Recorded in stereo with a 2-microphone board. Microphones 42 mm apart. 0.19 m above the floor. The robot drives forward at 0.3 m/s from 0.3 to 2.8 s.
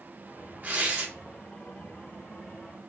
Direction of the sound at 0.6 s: 40° right (ahead or behind).